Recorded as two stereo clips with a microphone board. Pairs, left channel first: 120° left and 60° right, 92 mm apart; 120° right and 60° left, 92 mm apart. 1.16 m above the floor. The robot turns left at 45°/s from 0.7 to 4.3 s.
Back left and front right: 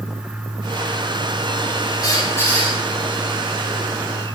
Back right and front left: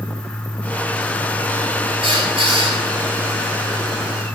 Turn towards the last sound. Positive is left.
turn(degrees=-30)